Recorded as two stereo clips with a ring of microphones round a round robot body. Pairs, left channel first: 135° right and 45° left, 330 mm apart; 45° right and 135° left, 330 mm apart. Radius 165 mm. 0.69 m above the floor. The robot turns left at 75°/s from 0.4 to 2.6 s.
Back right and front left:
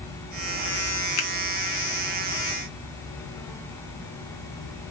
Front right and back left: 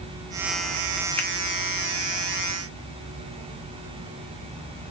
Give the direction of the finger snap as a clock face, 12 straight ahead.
4 o'clock.